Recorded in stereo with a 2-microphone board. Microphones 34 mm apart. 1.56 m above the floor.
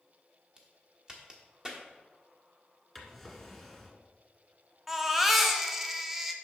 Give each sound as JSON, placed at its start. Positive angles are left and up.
{"t": 0.6, "sound": "a crack", "side_deg": -20, "distance_m": 1.3}
{"t": 3.0, "sound": "a drawer", "side_deg": 0, "distance_m": 1.7}
{"t": 4.9, "sound": "a baby crying", "side_deg": -10, "distance_m": 0.8}